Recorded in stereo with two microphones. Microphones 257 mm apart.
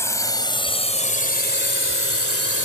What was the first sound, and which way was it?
A drone, 10° left (ahead or behind).